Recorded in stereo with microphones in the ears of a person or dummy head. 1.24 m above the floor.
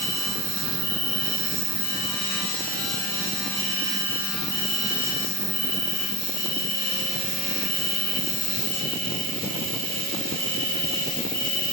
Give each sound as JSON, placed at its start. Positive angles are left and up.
{"t": 0.0, "sound": "an insect", "side_deg": -60, "distance_m": 1.9}